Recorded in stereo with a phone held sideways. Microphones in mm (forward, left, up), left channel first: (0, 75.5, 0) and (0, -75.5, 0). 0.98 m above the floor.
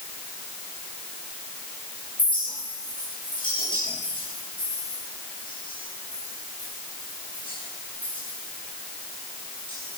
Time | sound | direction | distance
2.2 | a clink | 35° left (ahead or behind) | 9.5 m